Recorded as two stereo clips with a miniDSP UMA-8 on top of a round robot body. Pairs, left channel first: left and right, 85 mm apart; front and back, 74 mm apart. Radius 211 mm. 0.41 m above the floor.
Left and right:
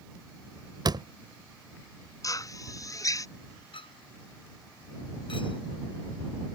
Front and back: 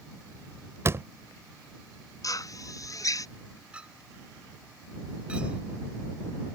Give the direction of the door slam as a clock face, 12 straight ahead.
4 o'clock.